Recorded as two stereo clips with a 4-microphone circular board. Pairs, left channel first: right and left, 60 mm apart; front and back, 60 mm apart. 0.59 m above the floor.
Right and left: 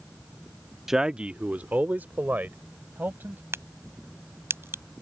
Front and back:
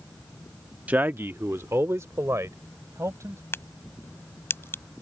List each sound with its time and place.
0.9 s a man speaking: 165° left; by 3.4 s 145° left
3.5 s a crack: 45° left